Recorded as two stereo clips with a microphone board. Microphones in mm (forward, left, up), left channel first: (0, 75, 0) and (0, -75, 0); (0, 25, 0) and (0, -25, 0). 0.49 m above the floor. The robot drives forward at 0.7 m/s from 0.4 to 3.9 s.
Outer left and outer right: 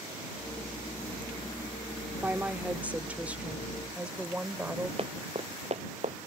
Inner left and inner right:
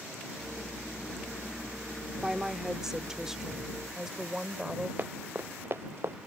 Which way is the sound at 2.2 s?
15° right (ahead or behind).